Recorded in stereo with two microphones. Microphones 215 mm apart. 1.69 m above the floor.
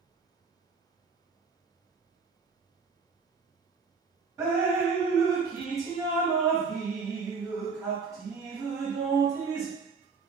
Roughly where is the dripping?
Centre.